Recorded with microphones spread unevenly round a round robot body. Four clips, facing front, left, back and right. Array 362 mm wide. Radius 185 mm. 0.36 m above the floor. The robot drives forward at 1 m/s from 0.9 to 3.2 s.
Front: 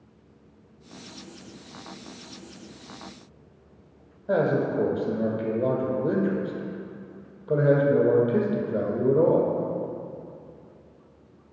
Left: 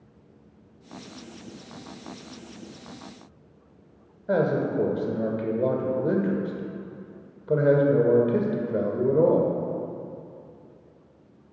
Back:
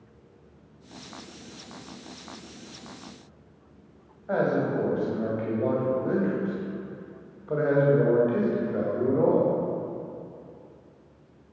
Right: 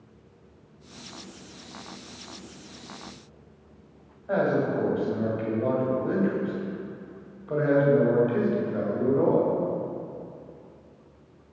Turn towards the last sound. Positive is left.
turn(degrees=60)